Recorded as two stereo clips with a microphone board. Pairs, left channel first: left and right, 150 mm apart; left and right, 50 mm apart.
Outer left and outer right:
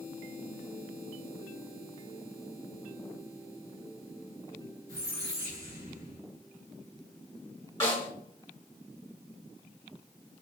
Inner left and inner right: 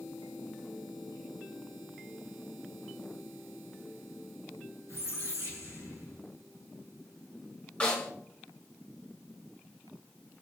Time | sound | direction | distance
4.9 | a squeak | 80° right | 1.7 m
7.8 | a snare drum | 20° left (ahead or behind) | 1.9 m